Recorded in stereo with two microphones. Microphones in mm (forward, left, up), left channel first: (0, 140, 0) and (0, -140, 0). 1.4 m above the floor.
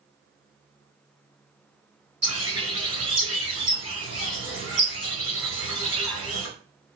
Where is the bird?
55° right (ahead or behind), 3 m.